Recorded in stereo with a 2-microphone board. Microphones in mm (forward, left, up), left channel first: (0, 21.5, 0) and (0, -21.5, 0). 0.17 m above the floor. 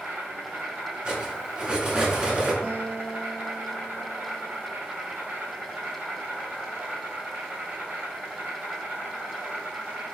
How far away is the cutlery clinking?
About 1.0 m.